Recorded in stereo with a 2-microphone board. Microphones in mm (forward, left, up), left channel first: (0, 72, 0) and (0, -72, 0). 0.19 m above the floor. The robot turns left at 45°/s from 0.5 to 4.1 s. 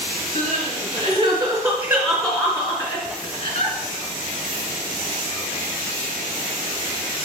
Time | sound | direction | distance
0.3 | crying | 55° right (ahead or behind) | 1.8 m